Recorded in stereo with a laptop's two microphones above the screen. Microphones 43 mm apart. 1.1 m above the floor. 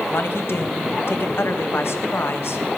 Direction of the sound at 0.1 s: 70° left (ahead or behind).